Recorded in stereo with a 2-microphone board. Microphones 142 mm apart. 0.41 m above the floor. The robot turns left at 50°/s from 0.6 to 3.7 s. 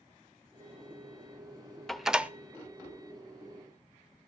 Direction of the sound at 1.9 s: Centre (ahead or behind).